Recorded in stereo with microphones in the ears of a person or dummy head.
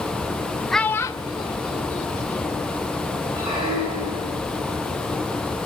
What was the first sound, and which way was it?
A child speaking, centre (ahead or behind).